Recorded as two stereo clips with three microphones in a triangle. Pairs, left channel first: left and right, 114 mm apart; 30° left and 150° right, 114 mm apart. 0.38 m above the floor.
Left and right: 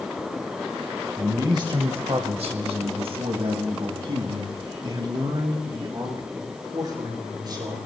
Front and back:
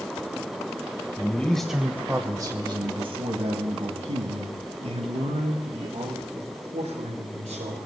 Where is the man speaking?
35° right, 1.3 m; by 7.8 s 145° right, 6 m.